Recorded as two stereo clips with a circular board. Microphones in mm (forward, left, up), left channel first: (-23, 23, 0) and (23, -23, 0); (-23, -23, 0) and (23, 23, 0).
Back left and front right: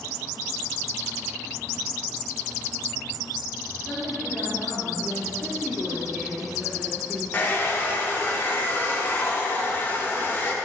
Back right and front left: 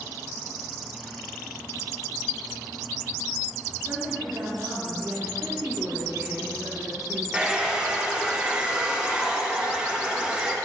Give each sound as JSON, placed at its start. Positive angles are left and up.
{"t": 3.9, "sound": "a woman speaking", "azimuth_deg": 75, "distance_m": 2.0}
{"t": 5.4, "sound": "a woman speaking", "azimuth_deg": 35, "distance_m": 3.0}
{"t": 7.3, "sound": "a hair dryer", "azimuth_deg": 110, "distance_m": 1.1}